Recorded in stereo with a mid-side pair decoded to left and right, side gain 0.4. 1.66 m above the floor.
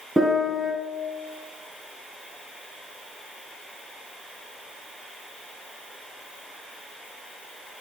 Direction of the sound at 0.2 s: 15° right.